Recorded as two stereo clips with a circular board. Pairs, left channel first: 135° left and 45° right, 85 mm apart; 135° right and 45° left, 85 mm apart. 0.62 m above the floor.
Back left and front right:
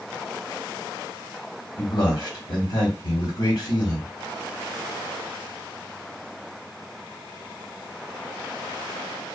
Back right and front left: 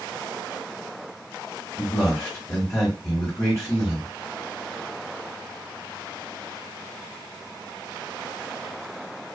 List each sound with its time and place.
1.8 s a man speaking: 140° left, 1.6 m